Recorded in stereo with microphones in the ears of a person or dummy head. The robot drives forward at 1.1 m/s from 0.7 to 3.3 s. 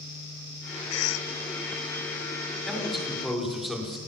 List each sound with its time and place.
0.9 s a cough: 80° left, 0.9 m; by 1.3 s 65° left (ahead or behind), 1.0 m
2.7 s a man speaking: centre (ahead or behind), 6 m